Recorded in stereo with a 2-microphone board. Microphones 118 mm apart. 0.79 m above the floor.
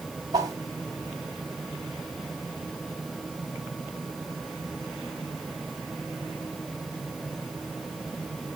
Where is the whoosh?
30° right (ahead or behind), 2 m.